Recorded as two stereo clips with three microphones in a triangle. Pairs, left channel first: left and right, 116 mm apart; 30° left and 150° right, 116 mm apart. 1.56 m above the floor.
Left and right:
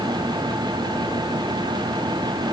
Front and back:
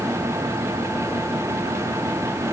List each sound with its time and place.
Only background noise.